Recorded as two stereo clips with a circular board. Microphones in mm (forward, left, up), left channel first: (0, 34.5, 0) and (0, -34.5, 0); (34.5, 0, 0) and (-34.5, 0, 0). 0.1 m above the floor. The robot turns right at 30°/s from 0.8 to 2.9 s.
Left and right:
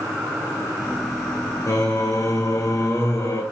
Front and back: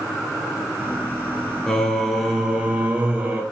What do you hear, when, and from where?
1.7 s singing: 80° left, 0.9 m; by 3.4 s 115° left, 0.9 m